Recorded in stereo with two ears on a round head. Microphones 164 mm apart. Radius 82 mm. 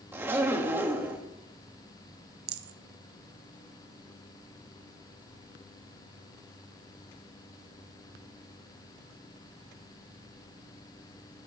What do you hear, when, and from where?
0.1 s a zipper: 15° right (ahead or behind), 1.7 m
2.5 s a rattle: 60° right (ahead or behind), 0.7 m